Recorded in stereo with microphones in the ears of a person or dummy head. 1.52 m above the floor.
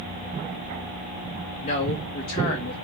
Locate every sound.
1.6 s a man speaking: 45° left (ahead or behind), 0.8 m